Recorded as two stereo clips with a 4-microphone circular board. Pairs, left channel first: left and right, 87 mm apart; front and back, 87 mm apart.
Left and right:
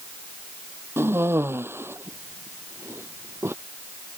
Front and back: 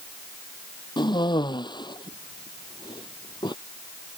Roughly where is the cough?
Ahead right.